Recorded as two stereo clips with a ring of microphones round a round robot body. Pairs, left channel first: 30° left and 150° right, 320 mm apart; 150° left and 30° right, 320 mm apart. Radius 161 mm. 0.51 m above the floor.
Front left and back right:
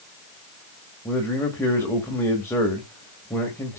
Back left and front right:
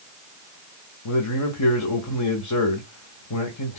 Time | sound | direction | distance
1.1 | a man speaking | 115° left | 1.9 m